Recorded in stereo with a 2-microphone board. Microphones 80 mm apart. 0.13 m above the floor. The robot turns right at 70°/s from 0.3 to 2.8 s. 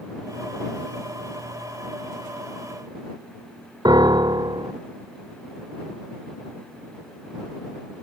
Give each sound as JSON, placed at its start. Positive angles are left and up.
{"t": 3.9, "sound": "a piano", "side_deg": -65}